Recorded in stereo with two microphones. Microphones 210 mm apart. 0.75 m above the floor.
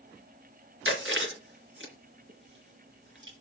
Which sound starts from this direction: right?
Chewing, at 0.8 s.